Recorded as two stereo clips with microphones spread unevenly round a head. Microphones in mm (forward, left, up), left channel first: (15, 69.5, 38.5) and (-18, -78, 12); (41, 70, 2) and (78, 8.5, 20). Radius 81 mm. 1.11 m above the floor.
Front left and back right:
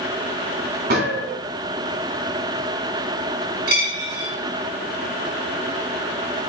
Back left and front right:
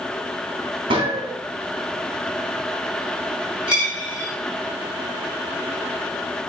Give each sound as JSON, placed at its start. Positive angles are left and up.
{"t": 0.9, "sound": "a gunshot", "azimuth_deg": -75, "distance_m": 1.3}
{"t": 3.7, "sound": "a dropped coin", "azimuth_deg": -135, "distance_m": 2.5}